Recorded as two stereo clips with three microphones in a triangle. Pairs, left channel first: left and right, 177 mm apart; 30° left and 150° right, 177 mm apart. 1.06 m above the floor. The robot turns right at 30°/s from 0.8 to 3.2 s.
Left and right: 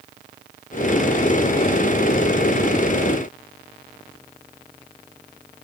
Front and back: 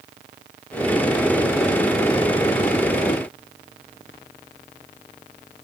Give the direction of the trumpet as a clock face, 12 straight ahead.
I don't hear a trumpet.